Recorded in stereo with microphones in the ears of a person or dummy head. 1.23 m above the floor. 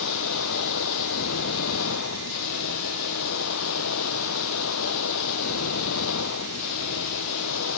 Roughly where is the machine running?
Left.